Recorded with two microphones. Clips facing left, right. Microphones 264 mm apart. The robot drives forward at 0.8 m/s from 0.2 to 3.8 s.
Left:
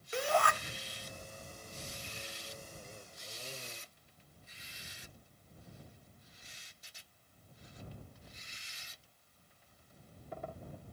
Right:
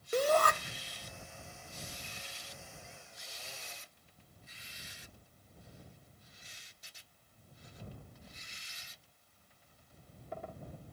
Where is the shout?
45° right (ahead or behind), 1.1 m.